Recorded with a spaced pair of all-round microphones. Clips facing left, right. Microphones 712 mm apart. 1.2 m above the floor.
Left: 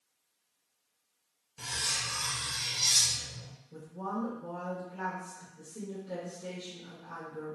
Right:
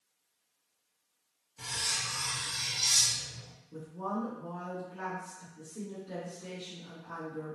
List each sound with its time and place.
1.6 s cutlery clinking: 45° left (ahead or behind), 0.8 m
3.7 s a woman speaking: 20° left (ahead or behind), 1.1 m